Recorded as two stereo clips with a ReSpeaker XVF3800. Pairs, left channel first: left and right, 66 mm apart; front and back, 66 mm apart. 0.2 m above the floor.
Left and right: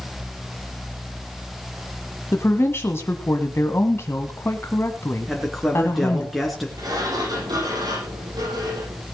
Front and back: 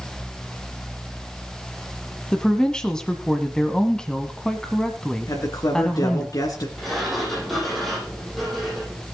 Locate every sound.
2.3 s a woman speaking: 70° left, 1.3 m
5.3 s a man speaking: straight ahead, 2.5 m
6.8 s a sliding door: 90° right, 8 m